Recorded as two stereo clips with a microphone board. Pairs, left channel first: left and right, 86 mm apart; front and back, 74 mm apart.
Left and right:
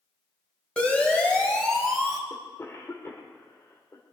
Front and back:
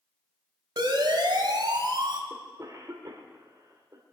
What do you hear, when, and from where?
0.8 s a siren: 165° left, 3.5 m; by 2.2 s straight behind, 3 m
2.3 s a cough: 145° left, 1.7 m